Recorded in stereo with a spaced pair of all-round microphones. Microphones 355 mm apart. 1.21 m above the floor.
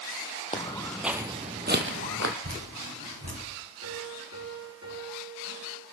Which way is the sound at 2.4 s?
50° right (ahead or behind).